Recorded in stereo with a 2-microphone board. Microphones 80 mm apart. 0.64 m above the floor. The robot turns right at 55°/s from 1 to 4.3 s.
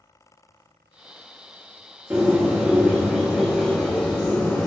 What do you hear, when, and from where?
2.1 s a bird: 25° right (ahead or behind), 1.2 m; by 4.7 s 25° left (ahead or behind), 1.2 m